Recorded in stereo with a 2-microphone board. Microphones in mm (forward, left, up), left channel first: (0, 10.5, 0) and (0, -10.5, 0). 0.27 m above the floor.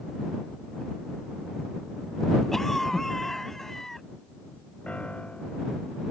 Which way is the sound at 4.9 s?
80° left.